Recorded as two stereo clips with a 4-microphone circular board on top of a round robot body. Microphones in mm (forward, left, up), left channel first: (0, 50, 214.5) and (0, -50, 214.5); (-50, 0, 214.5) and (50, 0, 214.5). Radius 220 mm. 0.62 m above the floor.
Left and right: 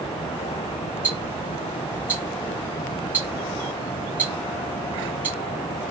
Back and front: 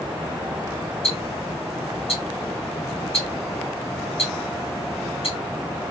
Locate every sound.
1.0 s ticking: 165° right, 3 m